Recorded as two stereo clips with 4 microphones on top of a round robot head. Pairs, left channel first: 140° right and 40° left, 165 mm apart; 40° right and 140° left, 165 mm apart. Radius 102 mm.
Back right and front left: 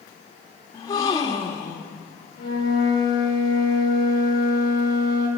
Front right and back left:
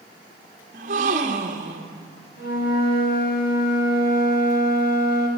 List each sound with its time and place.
0.7 s a gasp: 160° left, 1.2 m
2.4 s a flute: 75° right, 4 m